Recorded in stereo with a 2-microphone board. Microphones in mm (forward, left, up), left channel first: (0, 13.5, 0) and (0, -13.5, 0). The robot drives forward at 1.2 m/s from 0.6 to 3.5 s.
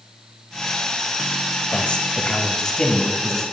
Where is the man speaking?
40° left (ahead or behind), 1.3 m; by 3.4 s 20° left (ahead or behind), 2.5 m.